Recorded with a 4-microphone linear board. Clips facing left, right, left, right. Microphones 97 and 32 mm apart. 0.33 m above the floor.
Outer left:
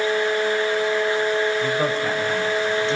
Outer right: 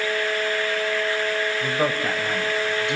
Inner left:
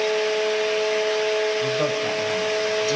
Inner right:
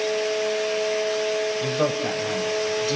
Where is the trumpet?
No trumpet in this recording.